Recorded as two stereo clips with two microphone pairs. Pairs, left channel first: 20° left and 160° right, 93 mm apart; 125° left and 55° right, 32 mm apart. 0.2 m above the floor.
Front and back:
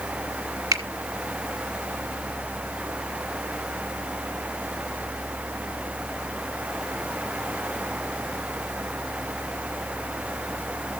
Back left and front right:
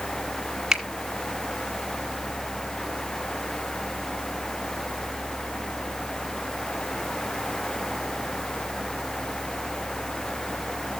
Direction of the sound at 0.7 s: 125° right.